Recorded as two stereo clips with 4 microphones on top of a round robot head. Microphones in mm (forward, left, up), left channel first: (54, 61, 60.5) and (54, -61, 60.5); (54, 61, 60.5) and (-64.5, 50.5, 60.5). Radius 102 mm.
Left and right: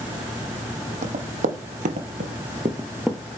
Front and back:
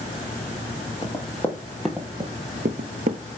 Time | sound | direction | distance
1.0 | running footsteps | 70° right | 1.5 m